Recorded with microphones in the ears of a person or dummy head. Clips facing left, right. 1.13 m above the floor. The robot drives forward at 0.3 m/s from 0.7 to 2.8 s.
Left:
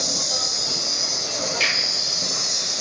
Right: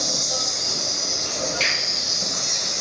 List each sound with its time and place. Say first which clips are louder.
0.0 s an insect: right 1 dB; 40° right (ahead or behind), 1.3 m; by 2.8 s 30° right (ahead or behind), 1.6 m
1.6 s a finger snap: right 1 dB; 10° left (ahead or behind), 1.1 m